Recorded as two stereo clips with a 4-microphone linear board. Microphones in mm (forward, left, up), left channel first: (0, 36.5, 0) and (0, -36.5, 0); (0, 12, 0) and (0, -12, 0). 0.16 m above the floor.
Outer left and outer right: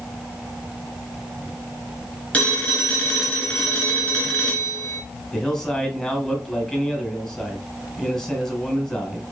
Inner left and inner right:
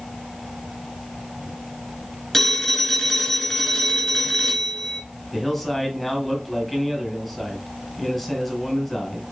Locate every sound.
2.3 s a phone ringing: 20° left (ahead or behind), 1.6 m
5.3 s a man speaking: 10° left (ahead or behind), 1.6 m